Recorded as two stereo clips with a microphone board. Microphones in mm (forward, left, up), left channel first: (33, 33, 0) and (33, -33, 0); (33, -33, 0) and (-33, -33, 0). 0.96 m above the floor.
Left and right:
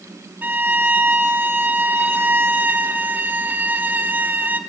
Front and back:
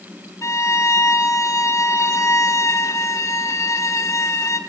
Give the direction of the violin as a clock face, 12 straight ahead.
1 o'clock.